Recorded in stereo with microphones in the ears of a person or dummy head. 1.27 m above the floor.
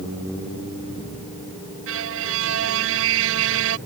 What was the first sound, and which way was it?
A violin, 70° right (ahead or behind).